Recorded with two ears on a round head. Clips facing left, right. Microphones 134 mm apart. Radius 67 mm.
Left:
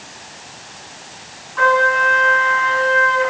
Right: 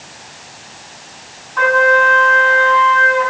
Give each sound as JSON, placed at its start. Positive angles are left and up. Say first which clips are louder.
{"t": 1.6, "sound": "a trumpet", "louder": "right 3 dB", "side_deg": -85, "distance_m": 4.0}